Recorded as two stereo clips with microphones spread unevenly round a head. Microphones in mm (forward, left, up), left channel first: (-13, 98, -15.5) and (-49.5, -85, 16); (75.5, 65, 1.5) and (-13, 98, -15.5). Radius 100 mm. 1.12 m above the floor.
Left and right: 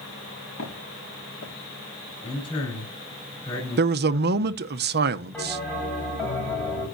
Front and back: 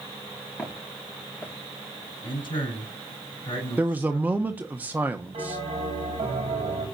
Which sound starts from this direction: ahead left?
Footsteps, at 0.6 s.